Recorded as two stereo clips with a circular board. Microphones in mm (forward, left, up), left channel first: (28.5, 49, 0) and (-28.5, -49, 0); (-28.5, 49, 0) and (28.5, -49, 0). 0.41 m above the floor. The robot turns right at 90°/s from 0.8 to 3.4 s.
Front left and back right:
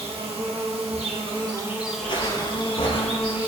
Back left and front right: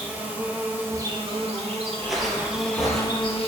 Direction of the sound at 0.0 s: 135° right.